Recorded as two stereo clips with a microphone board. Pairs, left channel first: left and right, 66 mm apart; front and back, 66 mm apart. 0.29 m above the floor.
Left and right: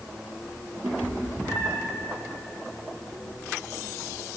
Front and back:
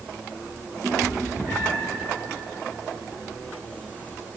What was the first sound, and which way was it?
A cat meowing, 125° right.